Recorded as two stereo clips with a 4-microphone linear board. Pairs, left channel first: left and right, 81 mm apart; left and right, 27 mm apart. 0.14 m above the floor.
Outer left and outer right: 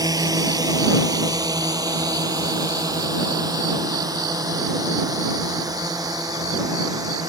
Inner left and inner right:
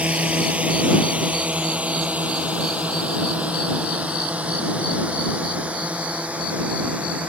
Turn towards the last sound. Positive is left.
turn(degrees=-50)  # may be behind; listen again after turning